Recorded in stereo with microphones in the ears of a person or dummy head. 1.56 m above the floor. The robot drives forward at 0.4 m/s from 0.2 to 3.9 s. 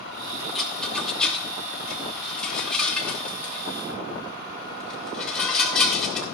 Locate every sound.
0.6 s a rattle: centre (ahead or behind), 0.7 m